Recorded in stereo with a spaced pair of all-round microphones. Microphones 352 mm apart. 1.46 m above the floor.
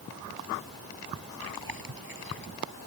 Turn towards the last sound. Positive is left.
turn(degrees=-75)  # may be behind; listen again after turning